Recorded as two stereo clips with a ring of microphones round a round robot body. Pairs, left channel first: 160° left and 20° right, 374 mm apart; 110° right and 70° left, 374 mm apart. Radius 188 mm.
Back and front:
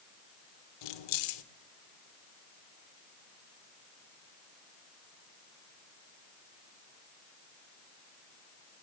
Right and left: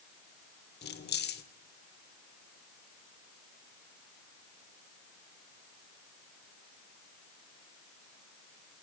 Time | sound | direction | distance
0.8 | keys jangling | straight behind | 2.0 m